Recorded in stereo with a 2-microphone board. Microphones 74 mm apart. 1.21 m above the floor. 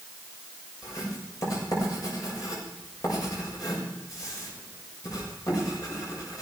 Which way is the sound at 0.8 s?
55° left (ahead or behind).